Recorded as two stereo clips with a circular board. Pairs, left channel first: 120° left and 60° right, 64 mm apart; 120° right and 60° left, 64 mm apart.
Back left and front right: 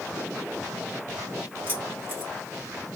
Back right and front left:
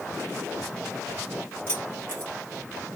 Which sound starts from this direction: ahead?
Keys jangling, at 1.7 s.